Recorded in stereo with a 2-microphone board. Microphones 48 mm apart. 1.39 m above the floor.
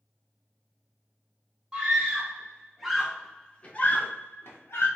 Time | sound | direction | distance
1.7 | a scream | 20° right (ahead or behind) | 2.5 m